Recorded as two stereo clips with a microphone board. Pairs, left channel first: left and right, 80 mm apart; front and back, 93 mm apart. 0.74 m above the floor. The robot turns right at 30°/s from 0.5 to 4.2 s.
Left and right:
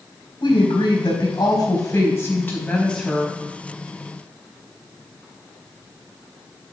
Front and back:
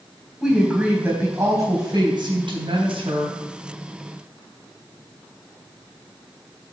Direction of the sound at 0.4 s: 90° left.